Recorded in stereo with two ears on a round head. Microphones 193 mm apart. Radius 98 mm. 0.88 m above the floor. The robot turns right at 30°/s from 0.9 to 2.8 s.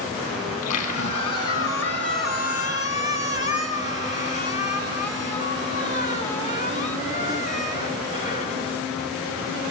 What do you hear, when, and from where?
0.5 s a squeak: 90° left, 4.5 m; by 8.6 s 145° left, 4.5 m